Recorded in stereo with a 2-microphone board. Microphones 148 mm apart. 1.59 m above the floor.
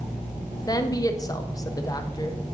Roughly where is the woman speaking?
Left.